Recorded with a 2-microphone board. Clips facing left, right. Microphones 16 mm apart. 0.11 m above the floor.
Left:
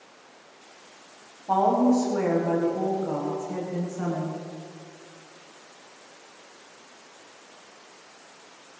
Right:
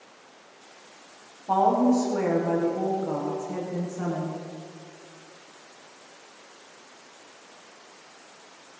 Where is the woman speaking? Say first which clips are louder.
Even; 10° right (ahead or behind), 8 m.